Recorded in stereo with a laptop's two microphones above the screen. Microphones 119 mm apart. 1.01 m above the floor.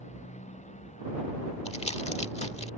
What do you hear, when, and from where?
0.0 s a motorcycle: 80° left; by 2.8 s 85° left
1.6 s crumpling: 65° left (ahead or behind)